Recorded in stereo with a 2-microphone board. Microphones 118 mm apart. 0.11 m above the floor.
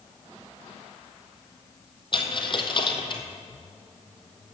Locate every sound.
2.1 s a dropped coin: 45° left (ahead or behind), 1.2 m